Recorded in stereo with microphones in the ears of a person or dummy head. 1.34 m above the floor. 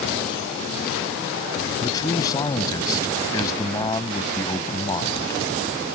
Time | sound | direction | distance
1.8 | a man speaking | 25° left (ahead or behind) | ?